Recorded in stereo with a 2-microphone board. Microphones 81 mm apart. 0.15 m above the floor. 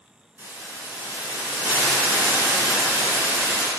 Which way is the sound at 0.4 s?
30° right (ahead or behind).